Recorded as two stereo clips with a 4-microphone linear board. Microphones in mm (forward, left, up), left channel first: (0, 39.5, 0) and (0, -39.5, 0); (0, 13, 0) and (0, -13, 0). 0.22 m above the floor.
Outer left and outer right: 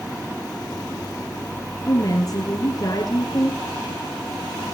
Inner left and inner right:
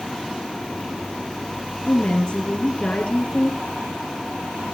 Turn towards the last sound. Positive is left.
turn(degrees=50)  # may be behind; listen again after turning